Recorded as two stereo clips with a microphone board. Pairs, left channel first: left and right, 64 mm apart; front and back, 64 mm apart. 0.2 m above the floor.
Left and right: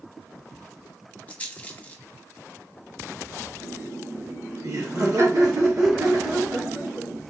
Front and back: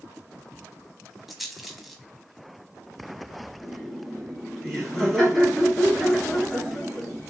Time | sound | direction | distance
1.3 | a rattle | 95° left | 1.0 m
3.6 | laughter | 95° right | 3.5 m